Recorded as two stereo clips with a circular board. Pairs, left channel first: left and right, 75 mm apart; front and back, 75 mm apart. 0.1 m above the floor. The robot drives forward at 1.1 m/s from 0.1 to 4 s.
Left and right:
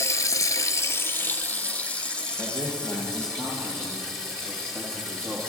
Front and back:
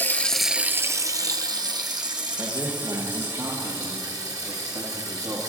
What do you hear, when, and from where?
0.0 s running water: 55° left, 0.8 m; by 5.5 s 175° left, 4 m
2.4 s a man speaking: 135° left, 2.5 m; by 5.4 s 155° left, 4 m